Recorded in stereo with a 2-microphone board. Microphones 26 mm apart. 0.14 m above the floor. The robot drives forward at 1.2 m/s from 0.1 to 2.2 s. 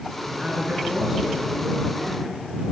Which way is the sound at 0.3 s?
35° right (ahead or behind).